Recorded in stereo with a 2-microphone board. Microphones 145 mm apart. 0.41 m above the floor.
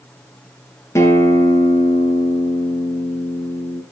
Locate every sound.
0.9 s a guitar: 20° left (ahead or behind), 3 m